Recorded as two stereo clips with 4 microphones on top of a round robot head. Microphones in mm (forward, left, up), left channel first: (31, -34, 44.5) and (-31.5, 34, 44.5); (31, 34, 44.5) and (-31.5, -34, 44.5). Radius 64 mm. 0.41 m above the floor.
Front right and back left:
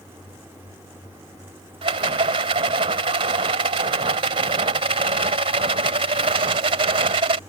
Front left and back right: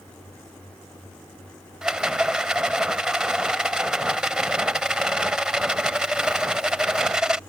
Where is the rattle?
145° left.